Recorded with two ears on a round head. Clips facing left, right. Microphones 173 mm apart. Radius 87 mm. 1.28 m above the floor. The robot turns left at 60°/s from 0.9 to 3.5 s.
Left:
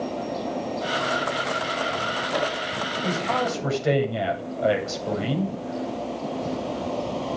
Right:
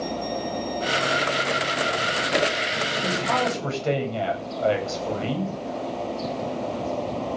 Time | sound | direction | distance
3.0 | a man speaking | 15° right (ahead or behind) | 9 m